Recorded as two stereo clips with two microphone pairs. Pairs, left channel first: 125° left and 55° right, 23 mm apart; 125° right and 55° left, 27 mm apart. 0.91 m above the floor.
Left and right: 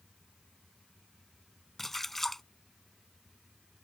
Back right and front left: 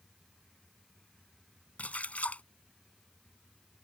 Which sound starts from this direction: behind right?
A splash, at 1.8 s.